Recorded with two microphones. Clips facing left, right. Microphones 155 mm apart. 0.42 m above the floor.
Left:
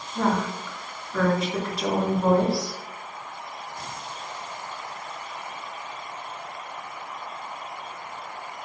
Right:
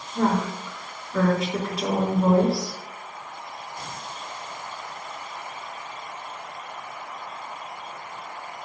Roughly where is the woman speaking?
Centre.